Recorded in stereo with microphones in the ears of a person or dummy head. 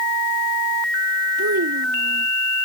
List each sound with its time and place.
1.4 s a child speaking: 80° right